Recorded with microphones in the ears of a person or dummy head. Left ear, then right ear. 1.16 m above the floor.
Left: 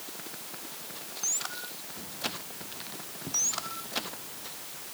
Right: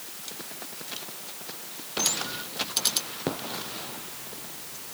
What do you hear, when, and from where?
Only background noise.